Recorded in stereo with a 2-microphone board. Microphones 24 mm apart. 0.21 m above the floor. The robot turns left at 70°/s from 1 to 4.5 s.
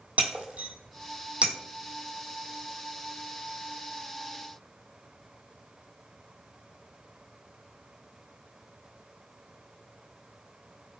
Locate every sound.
0.2 s breaking glass: 85° right, 0.9 m; by 1.5 s 55° right (ahead or behind), 0.9 m